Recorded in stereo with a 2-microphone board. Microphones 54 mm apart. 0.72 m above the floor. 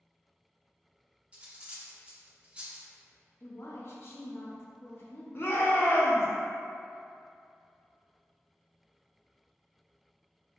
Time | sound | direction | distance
1.3 | cutlery clinking | 25° right (ahead or behind) | 0.6 m
3.4 | a woman speaking | 50° left (ahead or behind) | 0.6 m
5.3 | a shout | 45° left (ahead or behind) | 0.7 m